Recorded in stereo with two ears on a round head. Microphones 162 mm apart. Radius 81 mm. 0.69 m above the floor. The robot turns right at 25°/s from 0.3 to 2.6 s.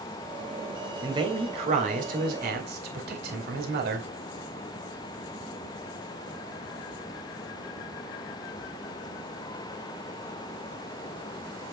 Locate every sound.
1.0 s a man speaking: 155° right, 2.5 m; by 4.1 s 115° right, 2.5 m